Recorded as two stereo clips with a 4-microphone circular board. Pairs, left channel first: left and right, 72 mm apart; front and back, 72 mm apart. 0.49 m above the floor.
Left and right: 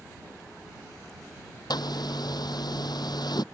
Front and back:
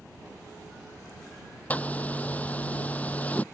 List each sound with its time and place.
1.7 s a zipper: 70° left